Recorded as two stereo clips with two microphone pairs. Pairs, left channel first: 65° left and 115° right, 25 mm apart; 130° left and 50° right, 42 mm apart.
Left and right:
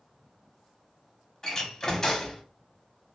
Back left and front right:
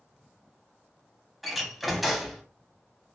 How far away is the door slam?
About 0.9 m.